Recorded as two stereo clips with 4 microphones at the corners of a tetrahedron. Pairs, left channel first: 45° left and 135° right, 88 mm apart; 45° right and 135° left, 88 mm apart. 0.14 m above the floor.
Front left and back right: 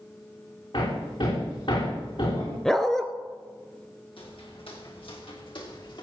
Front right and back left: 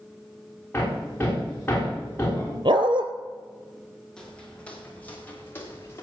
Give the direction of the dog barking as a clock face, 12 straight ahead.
8 o'clock.